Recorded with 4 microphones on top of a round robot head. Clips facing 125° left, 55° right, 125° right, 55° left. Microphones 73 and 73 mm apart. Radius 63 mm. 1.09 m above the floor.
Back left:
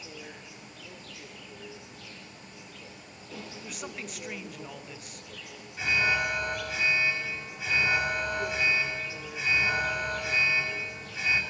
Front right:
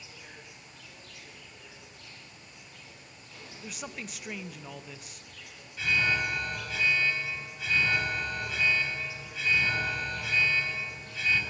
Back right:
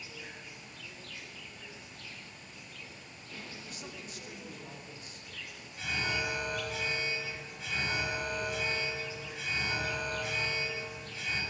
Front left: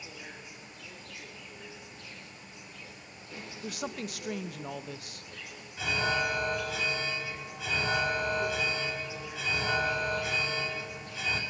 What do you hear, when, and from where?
0.0 s an insect: 135° left, 3.5 m
3.6 s a woman speaking: 35° left, 1.1 m
5.8 s an alarm: 50° left, 4.5 m